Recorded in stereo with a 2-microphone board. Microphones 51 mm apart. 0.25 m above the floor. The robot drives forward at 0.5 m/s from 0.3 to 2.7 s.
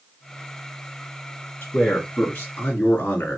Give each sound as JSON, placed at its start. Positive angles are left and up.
{"t": 1.6, "sound": "a man speaking", "side_deg": 40, "distance_m": 2.0}